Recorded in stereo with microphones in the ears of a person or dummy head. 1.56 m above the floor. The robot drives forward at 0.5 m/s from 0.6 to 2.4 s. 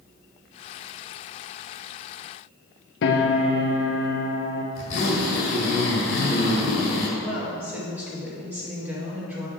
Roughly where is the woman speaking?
Centre.